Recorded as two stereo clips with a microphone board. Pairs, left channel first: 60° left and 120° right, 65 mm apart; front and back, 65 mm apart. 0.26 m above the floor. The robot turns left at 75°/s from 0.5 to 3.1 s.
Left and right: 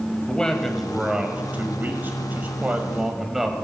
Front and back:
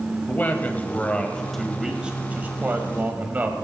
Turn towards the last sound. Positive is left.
turn(degrees=160)